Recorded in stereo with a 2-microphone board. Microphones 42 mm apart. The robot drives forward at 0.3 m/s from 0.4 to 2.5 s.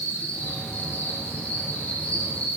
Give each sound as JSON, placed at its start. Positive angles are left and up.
{"t": 0.0, "sound": "an insect", "side_deg": 40, "distance_m": 4.5}